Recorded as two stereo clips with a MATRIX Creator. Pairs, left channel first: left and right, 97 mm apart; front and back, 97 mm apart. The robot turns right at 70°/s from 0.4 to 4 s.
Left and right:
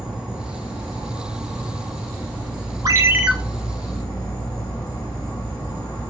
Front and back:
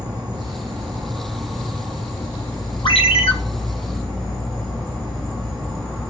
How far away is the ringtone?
About 0.6 m.